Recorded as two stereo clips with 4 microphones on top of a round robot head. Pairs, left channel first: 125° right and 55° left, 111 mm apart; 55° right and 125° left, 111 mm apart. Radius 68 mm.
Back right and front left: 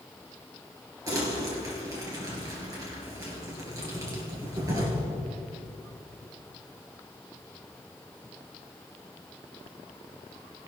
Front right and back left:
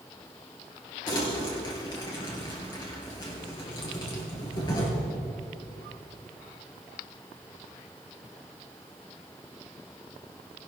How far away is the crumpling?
About 3.5 m.